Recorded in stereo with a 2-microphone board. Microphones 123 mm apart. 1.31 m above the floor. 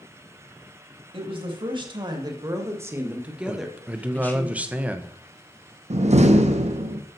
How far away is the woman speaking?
About 2.5 m.